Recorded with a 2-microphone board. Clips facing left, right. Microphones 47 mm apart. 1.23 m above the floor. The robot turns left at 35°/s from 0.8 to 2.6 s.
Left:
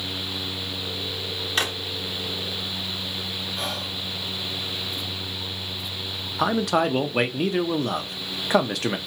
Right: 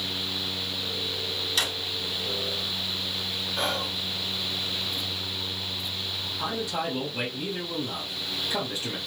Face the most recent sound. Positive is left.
turn(degrees=75)  # may be behind; listen again after turning